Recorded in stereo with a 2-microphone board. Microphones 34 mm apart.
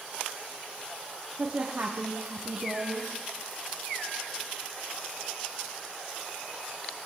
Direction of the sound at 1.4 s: 25° right (ahead or behind).